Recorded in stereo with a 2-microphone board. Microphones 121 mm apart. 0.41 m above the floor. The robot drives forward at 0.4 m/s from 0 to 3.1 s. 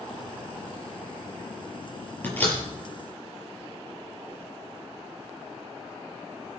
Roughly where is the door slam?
Centre.